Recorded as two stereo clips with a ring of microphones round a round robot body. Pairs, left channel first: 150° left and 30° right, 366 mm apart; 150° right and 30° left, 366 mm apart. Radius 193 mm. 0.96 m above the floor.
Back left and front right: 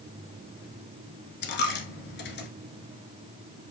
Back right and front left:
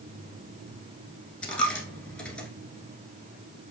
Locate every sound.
1.4 s a dropped coin: 125° left, 1.0 m